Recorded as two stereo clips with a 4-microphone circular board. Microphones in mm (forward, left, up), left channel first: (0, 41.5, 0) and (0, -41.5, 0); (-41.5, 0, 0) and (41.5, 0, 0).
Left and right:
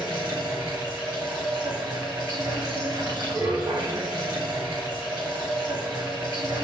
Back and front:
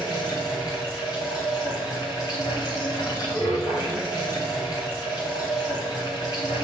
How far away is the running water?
About 6.5 m.